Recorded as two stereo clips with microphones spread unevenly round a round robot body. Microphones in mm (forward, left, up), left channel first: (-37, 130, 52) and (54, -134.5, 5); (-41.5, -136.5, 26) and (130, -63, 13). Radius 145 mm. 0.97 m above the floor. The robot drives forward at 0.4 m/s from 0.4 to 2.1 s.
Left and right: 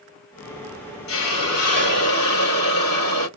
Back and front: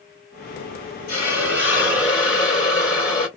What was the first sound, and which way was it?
A hiss, 140° left.